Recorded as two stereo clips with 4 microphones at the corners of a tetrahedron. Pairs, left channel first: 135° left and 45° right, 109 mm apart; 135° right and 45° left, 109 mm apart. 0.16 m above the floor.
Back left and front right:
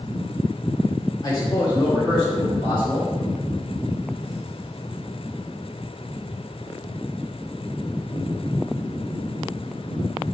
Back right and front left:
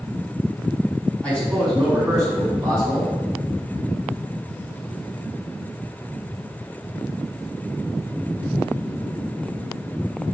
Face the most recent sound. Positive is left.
turn(degrees=110)